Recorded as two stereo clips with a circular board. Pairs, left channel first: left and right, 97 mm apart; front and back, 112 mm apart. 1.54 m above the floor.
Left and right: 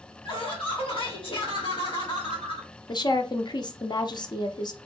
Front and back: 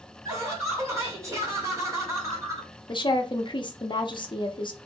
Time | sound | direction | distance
0.2 | laughter | 115° left | 2 m
2.9 | a woman speaking | 45° left | 0.7 m